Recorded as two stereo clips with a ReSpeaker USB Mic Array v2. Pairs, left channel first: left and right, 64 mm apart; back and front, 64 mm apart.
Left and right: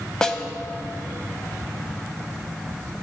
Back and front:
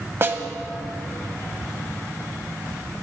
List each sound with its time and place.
0.2 s a snare drum: 15° left, 1.0 m